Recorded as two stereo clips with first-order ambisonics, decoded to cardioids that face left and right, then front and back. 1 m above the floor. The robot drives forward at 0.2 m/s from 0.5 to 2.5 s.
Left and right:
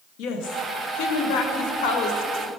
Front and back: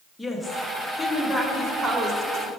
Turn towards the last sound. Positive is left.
turn(degrees=120)